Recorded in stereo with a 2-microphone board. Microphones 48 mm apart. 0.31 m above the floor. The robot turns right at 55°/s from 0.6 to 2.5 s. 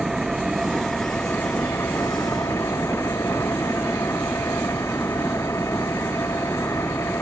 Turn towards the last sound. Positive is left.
turn(degrees=100)